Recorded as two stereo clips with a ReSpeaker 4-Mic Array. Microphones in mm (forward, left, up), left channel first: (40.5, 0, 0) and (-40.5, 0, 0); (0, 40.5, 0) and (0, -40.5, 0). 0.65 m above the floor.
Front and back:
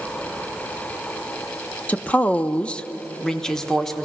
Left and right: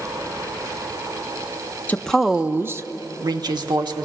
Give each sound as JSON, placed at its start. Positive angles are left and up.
{"t": 1.9, "sound": "a woman speaking", "azimuth_deg": 50, "distance_m": 0.6}